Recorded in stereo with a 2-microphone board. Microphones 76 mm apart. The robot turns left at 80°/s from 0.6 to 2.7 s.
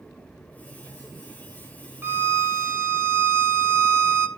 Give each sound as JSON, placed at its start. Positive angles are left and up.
{"t": 2.0, "sound": "a violin", "azimuth_deg": -50, "distance_m": 0.8}